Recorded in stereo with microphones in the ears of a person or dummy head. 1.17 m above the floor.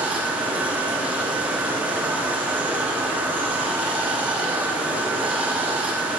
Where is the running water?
10° right (ahead or behind), 1.0 m.